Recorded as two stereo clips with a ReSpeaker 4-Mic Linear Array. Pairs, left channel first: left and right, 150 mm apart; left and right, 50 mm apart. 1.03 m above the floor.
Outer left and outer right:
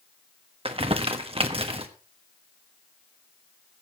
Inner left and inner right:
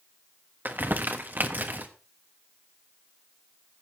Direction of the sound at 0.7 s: 40° right (ahead or behind).